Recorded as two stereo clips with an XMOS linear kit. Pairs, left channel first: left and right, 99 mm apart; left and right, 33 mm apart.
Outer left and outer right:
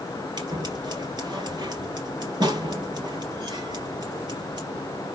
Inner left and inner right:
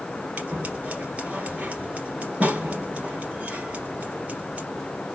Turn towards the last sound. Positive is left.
turn(degrees=-45)  # may be behind; listen again after turning